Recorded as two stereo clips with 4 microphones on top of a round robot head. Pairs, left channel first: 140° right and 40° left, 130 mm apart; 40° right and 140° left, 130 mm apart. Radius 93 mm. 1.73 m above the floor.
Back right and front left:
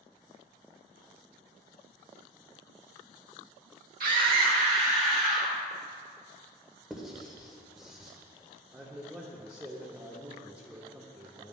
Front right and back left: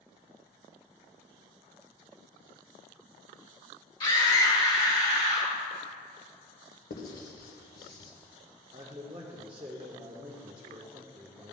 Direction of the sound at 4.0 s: 15° left.